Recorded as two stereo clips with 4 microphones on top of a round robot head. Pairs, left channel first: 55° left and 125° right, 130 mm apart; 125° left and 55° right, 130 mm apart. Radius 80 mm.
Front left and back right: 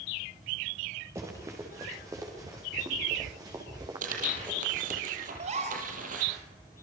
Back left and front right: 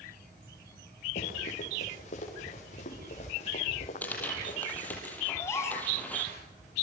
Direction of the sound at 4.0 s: 155° right.